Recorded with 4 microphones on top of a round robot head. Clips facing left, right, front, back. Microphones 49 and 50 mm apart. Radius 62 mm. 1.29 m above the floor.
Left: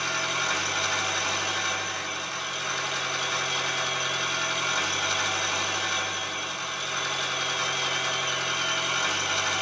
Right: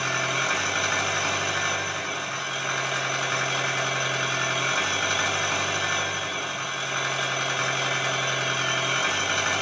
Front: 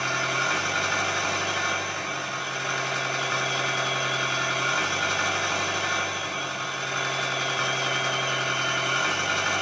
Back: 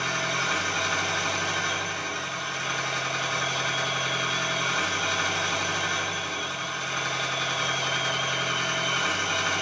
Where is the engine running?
35° right, 1.4 m.